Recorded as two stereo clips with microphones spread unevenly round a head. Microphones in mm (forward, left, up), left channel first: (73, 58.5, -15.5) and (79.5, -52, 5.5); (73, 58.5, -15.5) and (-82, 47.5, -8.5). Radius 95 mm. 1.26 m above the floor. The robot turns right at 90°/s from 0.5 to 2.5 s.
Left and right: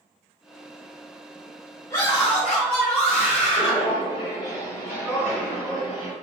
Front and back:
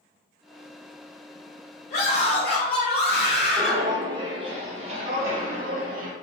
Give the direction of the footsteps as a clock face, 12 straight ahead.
8 o'clock.